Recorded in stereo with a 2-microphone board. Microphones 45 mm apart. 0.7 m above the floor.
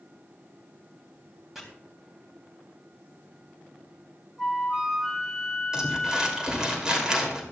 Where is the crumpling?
15° right (ahead or behind), 2.5 m.